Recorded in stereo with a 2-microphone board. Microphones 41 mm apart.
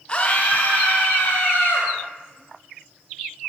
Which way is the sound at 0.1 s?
25° left (ahead or behind).